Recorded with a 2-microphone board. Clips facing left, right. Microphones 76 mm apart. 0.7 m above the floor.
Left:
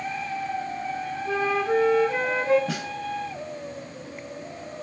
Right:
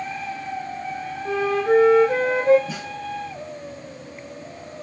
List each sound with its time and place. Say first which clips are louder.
1.2 s a flute: right 4 dB; 65° right (ahead or behind), 3 m
2.7 s a snare drum: left 1 dB; 75° left (ahead or behind), 2 m